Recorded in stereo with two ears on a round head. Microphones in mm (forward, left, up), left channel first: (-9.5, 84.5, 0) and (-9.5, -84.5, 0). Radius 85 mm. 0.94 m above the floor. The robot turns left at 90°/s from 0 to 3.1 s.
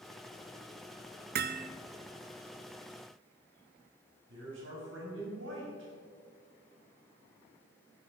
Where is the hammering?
90° right, 0.6 m; by 1.7 s 120° right, 0.6 m.